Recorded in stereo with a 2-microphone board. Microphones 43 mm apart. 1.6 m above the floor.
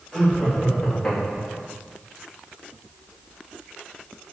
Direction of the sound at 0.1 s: 10° left (ahead or behind).